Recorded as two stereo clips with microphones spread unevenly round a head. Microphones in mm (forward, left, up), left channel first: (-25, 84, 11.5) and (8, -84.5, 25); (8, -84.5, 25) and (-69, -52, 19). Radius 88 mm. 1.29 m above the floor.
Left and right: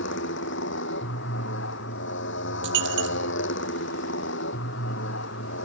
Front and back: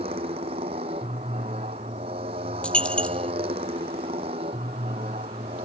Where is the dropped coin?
100° right.